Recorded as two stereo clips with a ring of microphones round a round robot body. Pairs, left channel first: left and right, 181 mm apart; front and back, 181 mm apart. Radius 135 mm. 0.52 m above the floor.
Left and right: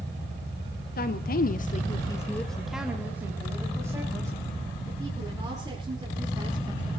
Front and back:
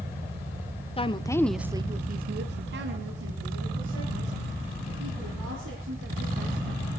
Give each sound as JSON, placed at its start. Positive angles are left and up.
{"t": 1.0, "sound": "a woman speaking", "azimuth_deg": 55, "distance_m": 1.5}